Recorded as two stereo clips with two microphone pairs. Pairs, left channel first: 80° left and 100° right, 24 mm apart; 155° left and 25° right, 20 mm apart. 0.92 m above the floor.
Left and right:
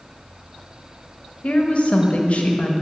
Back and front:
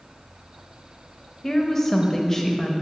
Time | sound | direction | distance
1.4 | a woman speaking | 80° left | 0.7 m